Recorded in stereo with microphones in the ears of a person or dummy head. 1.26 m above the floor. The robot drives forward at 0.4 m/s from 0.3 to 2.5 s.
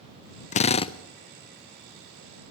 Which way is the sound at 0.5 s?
40° left (ahead or behind).